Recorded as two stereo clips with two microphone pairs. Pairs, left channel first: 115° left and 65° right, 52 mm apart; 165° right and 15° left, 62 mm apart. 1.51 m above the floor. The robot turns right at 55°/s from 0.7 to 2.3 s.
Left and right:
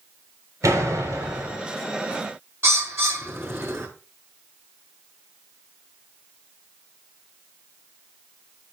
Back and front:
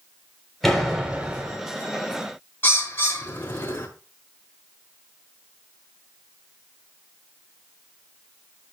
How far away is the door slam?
About 3.5 m.